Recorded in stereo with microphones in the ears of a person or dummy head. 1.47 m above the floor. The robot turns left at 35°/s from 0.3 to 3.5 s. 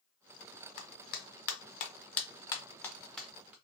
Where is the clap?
55° left (ahead or behind), 0.6 m; by 3.5 s 5° right (ahead or behind), 0.6 m.